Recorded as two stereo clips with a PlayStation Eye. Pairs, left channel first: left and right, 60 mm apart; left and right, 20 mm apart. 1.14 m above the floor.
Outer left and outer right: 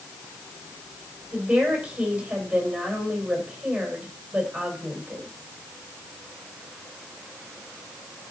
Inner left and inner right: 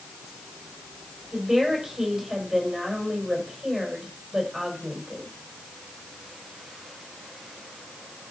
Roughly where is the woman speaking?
Centre.